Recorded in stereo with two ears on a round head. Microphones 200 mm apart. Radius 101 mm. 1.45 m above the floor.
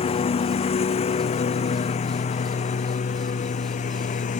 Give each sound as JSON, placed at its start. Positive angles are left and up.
{"t": 0.0, "sound": "a lawn mower", "side_deg": 30}